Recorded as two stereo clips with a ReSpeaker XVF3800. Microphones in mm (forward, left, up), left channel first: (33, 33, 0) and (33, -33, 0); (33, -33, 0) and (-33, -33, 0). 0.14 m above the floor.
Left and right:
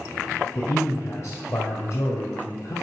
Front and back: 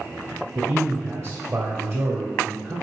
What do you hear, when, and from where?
0.6 s a man speaking: 140° left, 2.5 m